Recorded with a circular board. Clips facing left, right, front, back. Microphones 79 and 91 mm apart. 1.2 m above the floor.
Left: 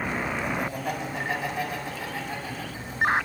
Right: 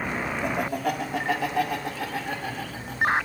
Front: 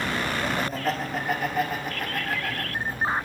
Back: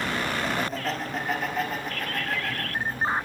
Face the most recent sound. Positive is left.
turn(degrees=-85)